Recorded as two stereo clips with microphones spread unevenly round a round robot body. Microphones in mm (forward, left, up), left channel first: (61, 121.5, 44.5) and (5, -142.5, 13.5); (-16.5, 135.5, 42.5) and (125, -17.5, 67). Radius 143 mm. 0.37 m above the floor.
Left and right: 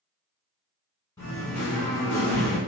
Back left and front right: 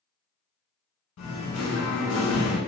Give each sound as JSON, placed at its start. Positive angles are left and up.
{"t": 1.2, "sound": "singing", "azimuth_deg": 155, "distance_m": 0.7}